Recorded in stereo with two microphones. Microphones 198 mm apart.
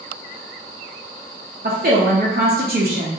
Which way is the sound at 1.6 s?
50° right (ahead or behind).